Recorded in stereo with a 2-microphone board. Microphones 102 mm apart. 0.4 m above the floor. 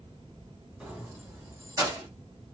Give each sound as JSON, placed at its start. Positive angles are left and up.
{"t": 0.8, "sound": "keys jangling", "side_deg": -15, "distance_m": 2.0}